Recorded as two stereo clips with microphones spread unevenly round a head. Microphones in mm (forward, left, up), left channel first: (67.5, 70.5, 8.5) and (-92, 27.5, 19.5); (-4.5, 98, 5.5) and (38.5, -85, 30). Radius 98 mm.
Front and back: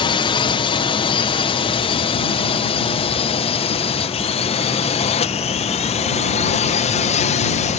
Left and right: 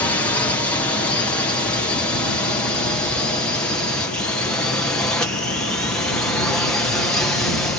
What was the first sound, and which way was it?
A drone, 40° left.